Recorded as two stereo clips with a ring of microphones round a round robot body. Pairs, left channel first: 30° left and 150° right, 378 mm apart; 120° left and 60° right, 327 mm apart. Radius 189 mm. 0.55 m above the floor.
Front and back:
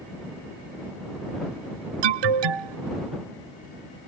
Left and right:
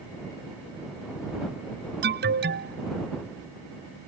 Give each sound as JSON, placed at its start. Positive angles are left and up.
{"t": 2.0, "sound": "an alarm", "azimuth_deg": -125}